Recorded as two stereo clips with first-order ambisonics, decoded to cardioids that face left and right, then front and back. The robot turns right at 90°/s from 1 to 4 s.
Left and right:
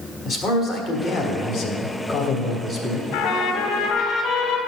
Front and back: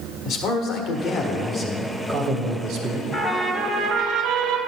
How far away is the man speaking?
About 1.3 m.